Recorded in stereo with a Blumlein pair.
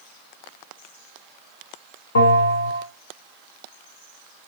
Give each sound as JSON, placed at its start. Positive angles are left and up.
{"t": 2.1, "sound": "a bell", "azimuth_deg": 70, "distance_m": 1.4}